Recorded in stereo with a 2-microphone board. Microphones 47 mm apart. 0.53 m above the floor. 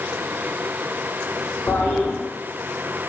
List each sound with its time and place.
1.7 s a toilet flushing: 35° left (ahead or behind), 1.4 m